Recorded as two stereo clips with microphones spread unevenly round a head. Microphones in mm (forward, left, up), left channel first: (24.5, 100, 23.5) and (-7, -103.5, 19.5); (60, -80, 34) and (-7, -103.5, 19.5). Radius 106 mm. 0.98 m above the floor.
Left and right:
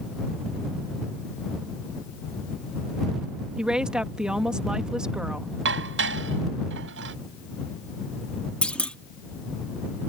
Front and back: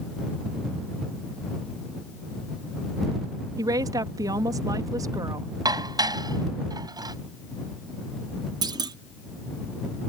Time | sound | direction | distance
3.6 | a woman speaking | 175° left | ?
5.7 | dishes clattering | 135° right | ?
8.6 | a clunk | 165° left | ?